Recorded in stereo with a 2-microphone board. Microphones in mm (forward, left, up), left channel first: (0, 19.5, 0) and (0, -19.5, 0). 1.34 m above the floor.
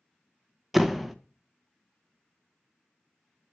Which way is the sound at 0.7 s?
5° right (ahead or behind).